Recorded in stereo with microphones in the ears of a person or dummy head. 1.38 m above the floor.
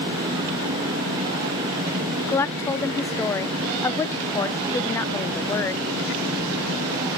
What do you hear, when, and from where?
2.3 s a woman speaking: 10° left (ahead or behind), 0.7 m